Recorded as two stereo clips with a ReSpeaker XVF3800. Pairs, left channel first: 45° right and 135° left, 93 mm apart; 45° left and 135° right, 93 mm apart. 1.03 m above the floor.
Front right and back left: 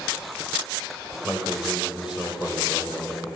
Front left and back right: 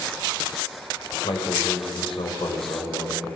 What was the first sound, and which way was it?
A man speaking, 55° left.